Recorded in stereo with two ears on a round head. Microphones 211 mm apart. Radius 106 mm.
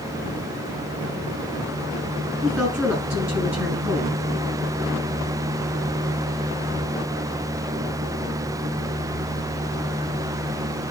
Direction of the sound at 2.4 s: 5° right (ahead or behind).